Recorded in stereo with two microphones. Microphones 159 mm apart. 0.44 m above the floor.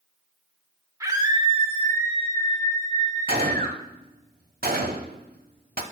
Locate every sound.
1.0 s a scream: 20° right (ahead or behind), 1.2 m; by 3.8 s 70° right (ahead or behind), 3 m
3.3 s a gunshot: 70° right (ahead or behind), 0.8 m